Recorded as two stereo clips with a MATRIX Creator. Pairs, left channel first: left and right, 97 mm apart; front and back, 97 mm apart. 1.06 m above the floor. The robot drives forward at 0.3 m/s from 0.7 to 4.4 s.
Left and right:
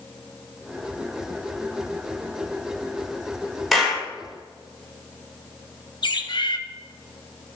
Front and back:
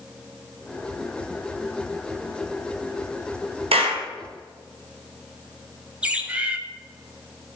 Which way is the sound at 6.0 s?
105° left.